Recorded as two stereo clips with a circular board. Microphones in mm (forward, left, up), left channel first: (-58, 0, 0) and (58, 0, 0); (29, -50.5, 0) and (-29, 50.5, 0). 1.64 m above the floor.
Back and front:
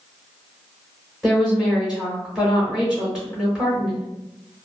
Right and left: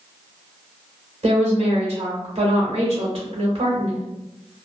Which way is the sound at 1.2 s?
85° left.